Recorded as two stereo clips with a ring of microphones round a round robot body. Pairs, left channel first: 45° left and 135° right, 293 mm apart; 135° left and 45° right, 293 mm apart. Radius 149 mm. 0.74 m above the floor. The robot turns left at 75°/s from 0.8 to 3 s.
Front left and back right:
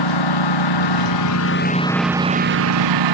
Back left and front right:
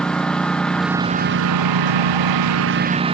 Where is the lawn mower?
50° left; by 3.1 s 115° right.